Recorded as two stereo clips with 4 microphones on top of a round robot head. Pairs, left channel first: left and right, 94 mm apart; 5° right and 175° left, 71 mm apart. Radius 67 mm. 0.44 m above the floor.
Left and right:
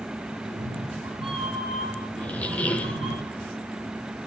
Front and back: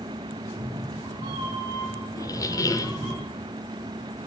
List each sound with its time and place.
0.4 s a cat meowing: 130° right, 5 m; by 3.1 s 110° right, 5 m
2.1 s a squeak: 15° left, 0.9 m